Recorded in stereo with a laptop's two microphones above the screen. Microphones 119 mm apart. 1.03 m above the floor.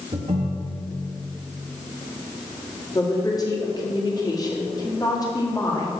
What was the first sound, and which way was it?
A ringtone, 65° right (ahead or behind).